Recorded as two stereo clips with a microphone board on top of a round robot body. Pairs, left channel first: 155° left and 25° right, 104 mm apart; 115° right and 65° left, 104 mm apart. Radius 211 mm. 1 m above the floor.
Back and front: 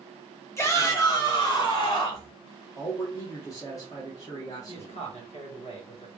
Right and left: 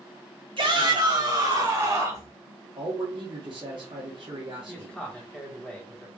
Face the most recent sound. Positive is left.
turn(degrees=165)